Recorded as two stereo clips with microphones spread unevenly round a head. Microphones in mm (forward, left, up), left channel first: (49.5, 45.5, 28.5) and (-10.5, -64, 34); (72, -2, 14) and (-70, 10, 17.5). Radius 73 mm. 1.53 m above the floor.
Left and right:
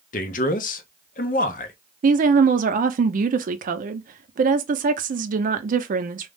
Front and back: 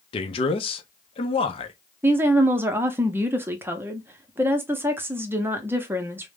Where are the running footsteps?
No running footsteps in this recording.